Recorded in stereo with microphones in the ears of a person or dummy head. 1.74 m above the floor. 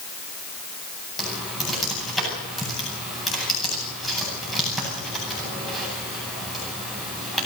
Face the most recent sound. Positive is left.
turn(degrees=5)  # may be behind; listen again after turning